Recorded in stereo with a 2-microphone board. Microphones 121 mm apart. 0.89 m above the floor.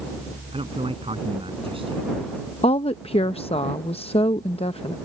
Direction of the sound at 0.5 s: 50° right (ahead or behind).